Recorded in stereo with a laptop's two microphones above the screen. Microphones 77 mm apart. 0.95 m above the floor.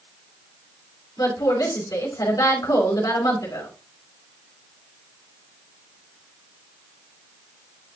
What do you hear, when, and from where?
1.2 s a woman speaking: 55° left (ahead or behind), 4.5 m